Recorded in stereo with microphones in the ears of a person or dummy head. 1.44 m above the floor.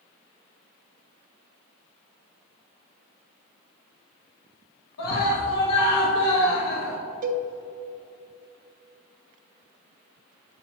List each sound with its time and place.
5.0 s a scream: 85° left, 1.5 m
7.2 s a cowbell: 50° right (ahead or behind), 0.7 m